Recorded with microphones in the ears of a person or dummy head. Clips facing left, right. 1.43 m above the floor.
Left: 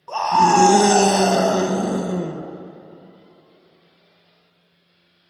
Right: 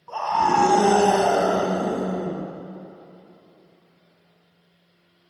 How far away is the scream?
About 1.5 m.